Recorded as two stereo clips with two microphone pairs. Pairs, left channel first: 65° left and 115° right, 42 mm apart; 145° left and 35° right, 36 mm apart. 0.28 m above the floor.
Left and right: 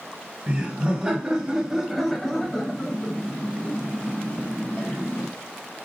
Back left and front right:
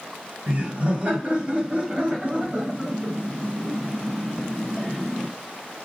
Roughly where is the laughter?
Right.